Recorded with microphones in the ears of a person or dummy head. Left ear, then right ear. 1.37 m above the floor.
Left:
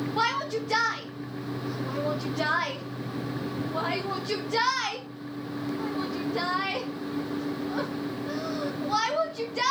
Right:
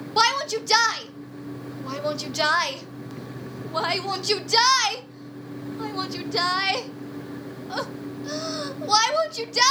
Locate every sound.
0.2 s a shout: 80° right, 1.8 m